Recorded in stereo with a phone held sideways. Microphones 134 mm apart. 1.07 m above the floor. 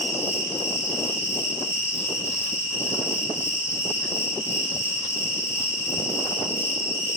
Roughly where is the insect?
Left.